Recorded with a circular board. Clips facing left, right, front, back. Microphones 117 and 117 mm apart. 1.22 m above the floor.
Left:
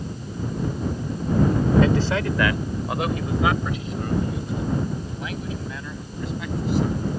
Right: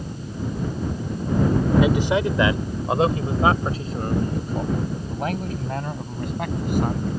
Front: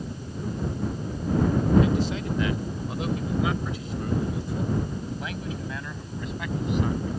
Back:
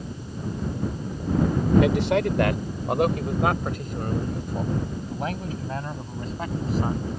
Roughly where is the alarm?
No alarm in this recording.